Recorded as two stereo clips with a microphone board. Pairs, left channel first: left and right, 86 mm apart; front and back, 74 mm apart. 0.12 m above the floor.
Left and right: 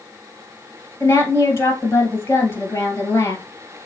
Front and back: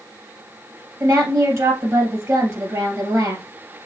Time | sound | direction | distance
1.0 | a woman speaking | 145° left | 2.5 m